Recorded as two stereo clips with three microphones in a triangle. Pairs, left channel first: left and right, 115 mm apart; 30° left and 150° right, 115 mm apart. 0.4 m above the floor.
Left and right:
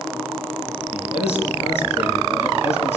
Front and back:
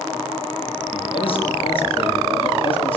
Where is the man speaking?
65° left, 7.5 m.